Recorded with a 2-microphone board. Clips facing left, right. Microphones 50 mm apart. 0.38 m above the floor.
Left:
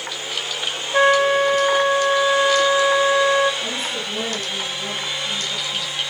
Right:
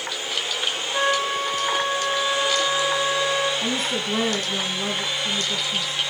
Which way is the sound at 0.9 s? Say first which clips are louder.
Left 8 dB; 45° left (ahead or behind).